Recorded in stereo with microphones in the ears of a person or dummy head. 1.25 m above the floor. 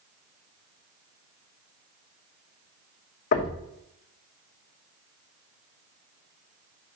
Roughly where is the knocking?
Left.